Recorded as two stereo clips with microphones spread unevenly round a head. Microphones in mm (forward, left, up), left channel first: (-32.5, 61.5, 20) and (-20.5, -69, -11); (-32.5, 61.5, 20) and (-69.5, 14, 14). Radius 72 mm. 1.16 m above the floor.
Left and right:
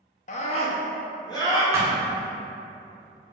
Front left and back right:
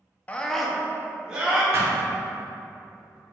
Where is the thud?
160° right, 0.9 m.